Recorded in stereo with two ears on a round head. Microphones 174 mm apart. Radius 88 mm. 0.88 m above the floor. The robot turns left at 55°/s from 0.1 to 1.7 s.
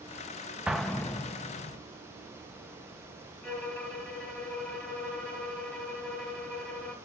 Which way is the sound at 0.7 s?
5° right (ahead or behind).